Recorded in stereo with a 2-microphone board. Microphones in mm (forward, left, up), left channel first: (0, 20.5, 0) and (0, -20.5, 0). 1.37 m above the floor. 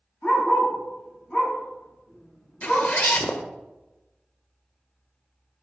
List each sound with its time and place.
0.2 s a dog barking: 40° left (ahead or behind), 4.5 m
2.6 s a zipper: 45° left (ahead or behind), 0.9 m